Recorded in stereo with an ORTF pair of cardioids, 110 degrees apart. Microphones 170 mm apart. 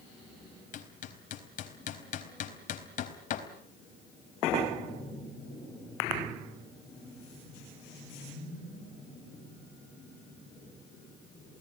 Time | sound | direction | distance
0.7 | hammering | 50° left | 4 m